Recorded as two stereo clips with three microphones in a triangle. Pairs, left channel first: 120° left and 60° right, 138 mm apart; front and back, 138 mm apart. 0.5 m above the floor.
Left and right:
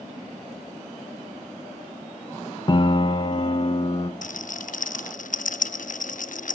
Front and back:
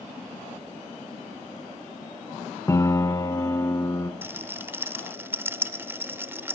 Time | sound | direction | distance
2.7 | a piano | 65° left | 1.0 m
4.2 | a rattle | 105° left | 0.5 m